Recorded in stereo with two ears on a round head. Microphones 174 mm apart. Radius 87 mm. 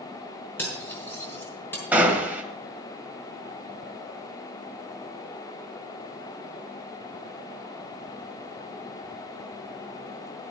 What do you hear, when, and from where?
0.6 s cutlery clinking: 10° left (ahead or behind), 4.5 m
1.9 s a gunshot: 10° right (ahead or behind), 1.7 m